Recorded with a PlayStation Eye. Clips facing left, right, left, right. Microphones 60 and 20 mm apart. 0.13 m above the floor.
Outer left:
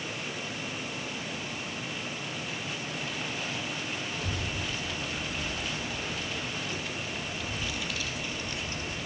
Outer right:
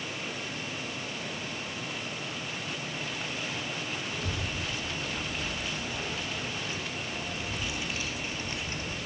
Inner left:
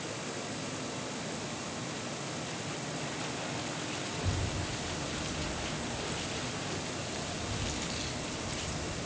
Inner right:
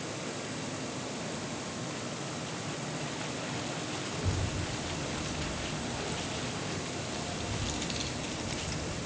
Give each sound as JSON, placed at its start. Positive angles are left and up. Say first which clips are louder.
{"t": 4.1, "sound": "a child speaking", "louder": "even, inner right 1 dB", "side_deg": -5, "distance_m": 5.5}